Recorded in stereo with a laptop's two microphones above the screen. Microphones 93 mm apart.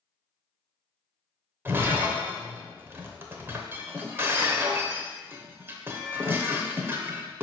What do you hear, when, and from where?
1.6 s breaking glass: 25° right (ahead or behind), 0.8 m